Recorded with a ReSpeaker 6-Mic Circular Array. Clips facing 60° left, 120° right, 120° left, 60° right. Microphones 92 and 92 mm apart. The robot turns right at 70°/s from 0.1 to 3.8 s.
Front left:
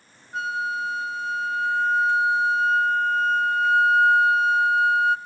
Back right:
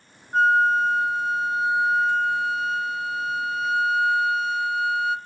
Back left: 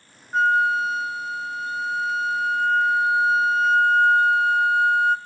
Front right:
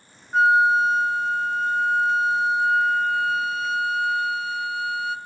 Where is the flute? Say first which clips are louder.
Back right 9 dB, front right 2 dB; 150° right, 0.8 m; by 5.2 s 95° left, 0.8 m.